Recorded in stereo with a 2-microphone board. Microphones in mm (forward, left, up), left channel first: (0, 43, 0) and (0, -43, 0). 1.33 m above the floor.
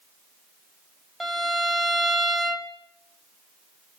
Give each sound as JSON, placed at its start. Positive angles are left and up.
{"t": 1.2, "sound": "a violin", "side_deg": 0, "distance_m": 2.5}